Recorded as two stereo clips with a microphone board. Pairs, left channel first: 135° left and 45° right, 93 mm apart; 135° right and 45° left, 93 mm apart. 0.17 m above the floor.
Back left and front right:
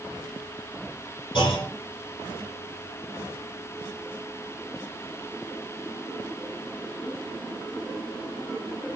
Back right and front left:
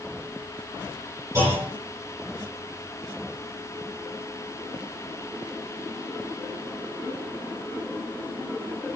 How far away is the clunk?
About 8 m.